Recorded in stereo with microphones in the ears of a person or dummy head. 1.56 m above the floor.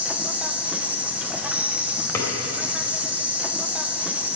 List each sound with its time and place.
0.0 s an insect: 5° right (ahead or behind), 0.9 m
2.1 s a drawer: 15° left (ahead or behind), 3 m